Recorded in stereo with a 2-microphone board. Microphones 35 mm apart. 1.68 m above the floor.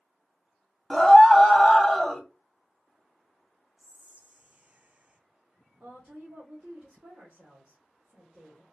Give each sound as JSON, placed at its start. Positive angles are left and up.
{"t": 0.9, "sound": "a scream", "side_deg": 0, "distance_m": 1.0}
{"t": 3.8, "sound": "whispering", "side_deg": -40, "distance_m": 0.5}
{"t": 5.8, "sound": "a woman speaking", "side_deg": -45, "distance_m": 1.4}